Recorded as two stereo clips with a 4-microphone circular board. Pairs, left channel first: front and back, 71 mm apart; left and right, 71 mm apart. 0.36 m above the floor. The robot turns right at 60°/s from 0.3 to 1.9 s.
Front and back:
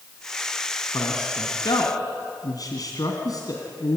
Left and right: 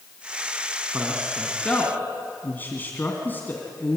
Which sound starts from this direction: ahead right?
A man speaking, at 0.9 s.